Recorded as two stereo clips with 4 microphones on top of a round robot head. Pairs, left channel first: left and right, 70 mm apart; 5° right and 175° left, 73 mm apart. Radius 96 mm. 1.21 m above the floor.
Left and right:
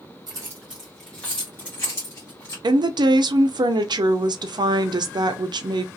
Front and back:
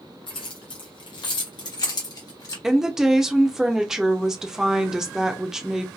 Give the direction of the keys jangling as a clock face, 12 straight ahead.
1 o'clock.